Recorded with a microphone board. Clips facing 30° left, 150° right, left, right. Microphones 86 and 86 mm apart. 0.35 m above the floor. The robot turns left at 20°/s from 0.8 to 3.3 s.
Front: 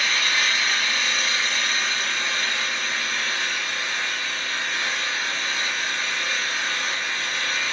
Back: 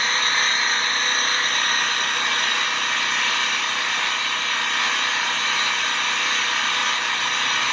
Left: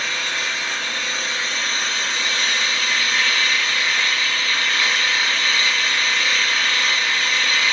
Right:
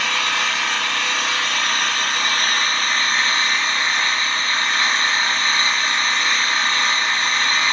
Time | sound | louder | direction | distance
0.0 | an engine running | back 2 dB, right 4 dB | 95° right | 1.1 m